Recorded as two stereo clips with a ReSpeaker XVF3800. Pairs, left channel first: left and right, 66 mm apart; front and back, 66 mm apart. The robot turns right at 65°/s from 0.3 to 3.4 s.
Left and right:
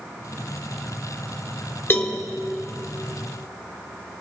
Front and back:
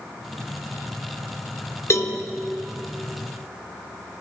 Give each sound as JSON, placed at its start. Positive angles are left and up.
{"t": 1.9, "sound": "a cowbell", "azimuth_deg": 40, "distance_m": 0.8}